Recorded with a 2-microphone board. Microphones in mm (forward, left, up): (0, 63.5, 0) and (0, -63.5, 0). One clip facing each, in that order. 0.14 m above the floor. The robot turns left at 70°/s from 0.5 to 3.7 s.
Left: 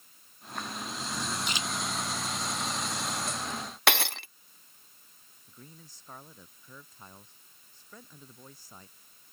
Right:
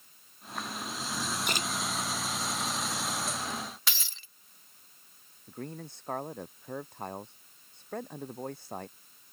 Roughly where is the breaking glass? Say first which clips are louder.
Left 15 dB; left.